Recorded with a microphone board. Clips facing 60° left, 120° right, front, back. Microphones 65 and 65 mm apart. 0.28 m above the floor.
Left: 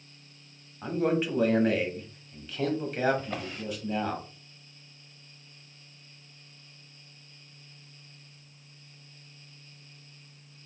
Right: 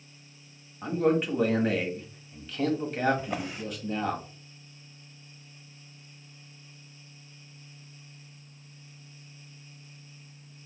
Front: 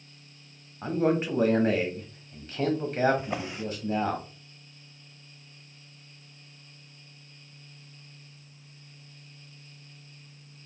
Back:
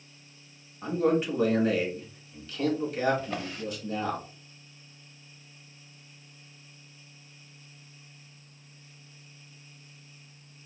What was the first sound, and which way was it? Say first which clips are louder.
A man speaking: right 2 dB, even; 30° right.